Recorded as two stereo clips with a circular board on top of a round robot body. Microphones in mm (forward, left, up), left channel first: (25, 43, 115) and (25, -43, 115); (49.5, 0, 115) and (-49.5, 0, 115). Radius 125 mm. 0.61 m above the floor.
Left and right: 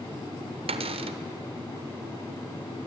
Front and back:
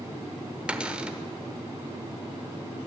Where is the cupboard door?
100° right, 1.1 m.